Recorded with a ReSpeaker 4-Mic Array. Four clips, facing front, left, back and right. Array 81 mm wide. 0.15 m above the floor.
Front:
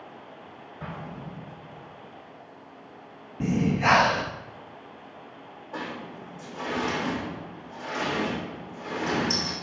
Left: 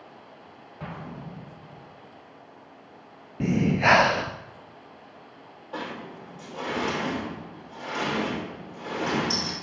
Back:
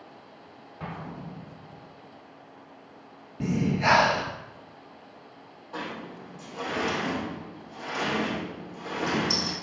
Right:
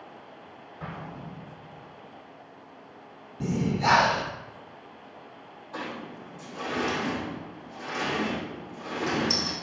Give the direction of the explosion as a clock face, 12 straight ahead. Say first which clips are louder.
Left 1 dB, even; 7 o'clock.